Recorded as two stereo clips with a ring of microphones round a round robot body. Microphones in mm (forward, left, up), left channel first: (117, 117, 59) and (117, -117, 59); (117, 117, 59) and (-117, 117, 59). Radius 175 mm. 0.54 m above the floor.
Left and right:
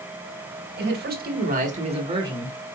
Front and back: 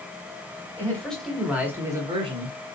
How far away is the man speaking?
About 1.5 m.